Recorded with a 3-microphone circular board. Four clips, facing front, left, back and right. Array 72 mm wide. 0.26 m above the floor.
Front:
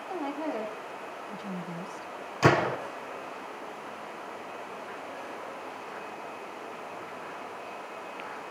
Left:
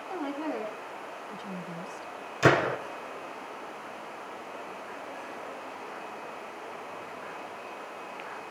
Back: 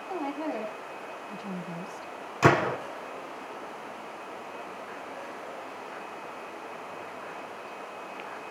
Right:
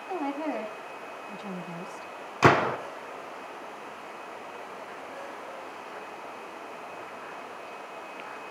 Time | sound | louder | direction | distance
0.1 | a woman speaking | right 3 dB, back 1 dB | 95° right | 8.5 m
2.4 | a gunshot | right 2 dB, back 1 dB | 100° right | 6.5 m